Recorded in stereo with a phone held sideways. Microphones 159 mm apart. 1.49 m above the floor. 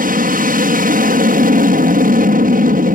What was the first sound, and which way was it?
An aircraft, 65° right (ahead or behind).